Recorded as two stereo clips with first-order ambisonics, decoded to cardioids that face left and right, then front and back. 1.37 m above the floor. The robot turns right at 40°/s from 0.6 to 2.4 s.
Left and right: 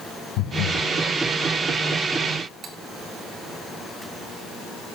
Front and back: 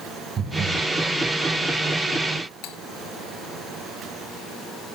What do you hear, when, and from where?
0.4 s breathing: 120° left, 4 m; by 0.9 s 135° left, 4 m
2.6 s cutlery clinking: 25° right, 1.8 m